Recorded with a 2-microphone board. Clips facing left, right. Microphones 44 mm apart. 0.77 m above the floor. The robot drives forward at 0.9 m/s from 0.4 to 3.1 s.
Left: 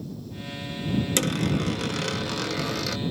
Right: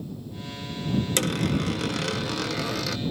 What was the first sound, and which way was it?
A dropped coin, centre (ahead or behind).